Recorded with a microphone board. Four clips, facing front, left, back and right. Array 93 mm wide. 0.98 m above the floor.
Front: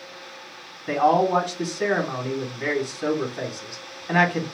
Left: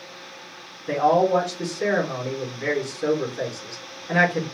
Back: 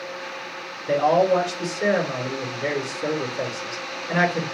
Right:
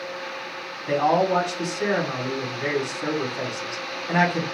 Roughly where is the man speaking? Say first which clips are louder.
Left 1 dB, back 1 dB; ahead.